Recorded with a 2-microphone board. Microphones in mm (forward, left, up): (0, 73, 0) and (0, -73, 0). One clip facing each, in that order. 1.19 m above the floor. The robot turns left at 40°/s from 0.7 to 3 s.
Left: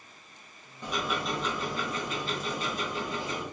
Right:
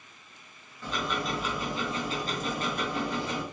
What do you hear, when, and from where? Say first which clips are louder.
0.8 s ticking: even; 15° left, 1.4 m; by 3.4 s 70° right, 1.4 m